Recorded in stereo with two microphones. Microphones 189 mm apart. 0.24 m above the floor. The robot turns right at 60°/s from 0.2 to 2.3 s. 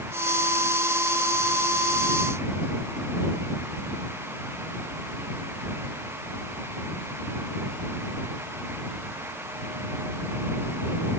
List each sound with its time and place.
Only background noise.